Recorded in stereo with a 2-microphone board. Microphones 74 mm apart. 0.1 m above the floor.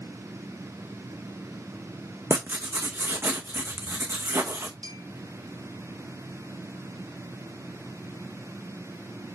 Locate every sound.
2.3 s writing: 35° right (ahead or behind), 1.4 m
4.8 s a clink: 70° right (ahead or behind), 2.5 m